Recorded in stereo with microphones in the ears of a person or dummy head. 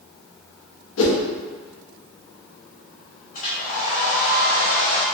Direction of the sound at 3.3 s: 55° left (ahead or behind).